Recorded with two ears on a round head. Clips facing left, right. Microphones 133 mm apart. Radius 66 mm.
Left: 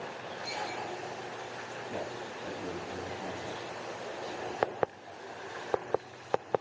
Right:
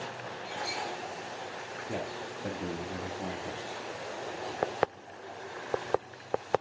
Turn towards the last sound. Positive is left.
turn(degrees=-55)  # may be behind; listen again after turning